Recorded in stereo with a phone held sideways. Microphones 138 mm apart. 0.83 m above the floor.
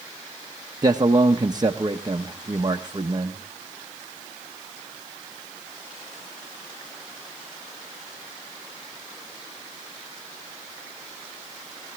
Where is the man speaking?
30° right (ahead or behind), 0.8 m.